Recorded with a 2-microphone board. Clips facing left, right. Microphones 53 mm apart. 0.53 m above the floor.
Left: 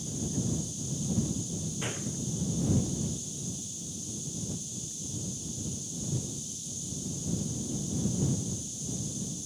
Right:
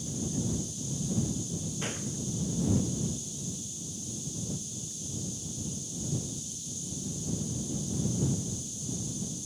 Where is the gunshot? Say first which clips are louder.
Even; 10° left (ahead or behind).